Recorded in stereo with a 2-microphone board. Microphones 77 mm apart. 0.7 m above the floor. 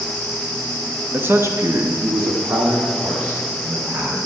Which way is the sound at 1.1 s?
20° right (ahead or behind).